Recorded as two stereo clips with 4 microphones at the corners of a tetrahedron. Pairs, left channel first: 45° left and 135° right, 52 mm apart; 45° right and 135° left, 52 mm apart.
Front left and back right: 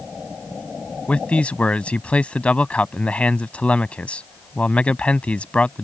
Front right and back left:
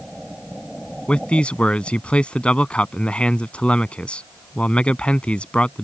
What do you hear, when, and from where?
1.1 s a man speaking: straight ahead